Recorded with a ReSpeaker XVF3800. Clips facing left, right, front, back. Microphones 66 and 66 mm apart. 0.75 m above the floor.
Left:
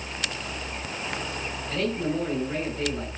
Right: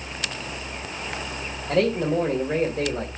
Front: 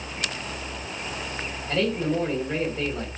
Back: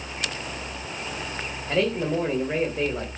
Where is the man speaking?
105° right, 2.5 m.